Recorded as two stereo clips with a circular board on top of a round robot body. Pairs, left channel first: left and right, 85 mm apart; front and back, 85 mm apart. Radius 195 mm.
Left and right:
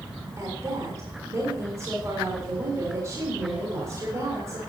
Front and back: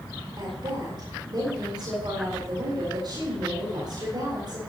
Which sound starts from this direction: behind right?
A woman speaking, at 0.4 s.